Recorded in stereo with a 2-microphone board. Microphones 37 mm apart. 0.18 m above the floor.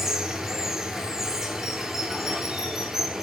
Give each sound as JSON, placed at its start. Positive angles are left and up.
{"t": 0.0, "sound": "running water", "side_deg": -10, "distance_m": 1.1}